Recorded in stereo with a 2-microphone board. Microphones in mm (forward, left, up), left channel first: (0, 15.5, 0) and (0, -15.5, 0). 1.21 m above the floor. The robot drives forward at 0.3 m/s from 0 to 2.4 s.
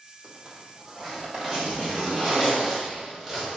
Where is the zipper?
25° right (ahead or behind), 2.5 m; by 3.6 s 20° right (ahead or behind), 3 m.